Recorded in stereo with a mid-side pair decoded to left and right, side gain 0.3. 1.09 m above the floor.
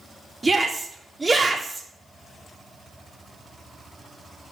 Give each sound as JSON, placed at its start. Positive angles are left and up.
{"t": 0.4, "sound": "a shout", "azimuth_deg": -25, "distance_m": 3.5}